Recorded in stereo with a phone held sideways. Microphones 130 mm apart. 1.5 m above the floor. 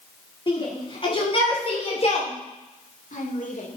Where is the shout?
35° left (ahead or behind), 4.5 m; by 3.8 s 80° left, 2.5 m.